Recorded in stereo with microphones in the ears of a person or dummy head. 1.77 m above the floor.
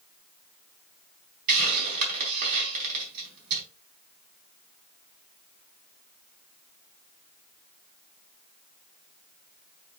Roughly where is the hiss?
Right.